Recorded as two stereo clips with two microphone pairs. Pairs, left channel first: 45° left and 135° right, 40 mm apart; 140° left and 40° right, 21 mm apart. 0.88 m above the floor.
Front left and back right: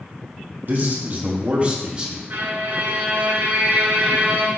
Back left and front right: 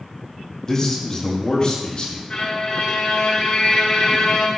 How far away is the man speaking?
About 1.8 m.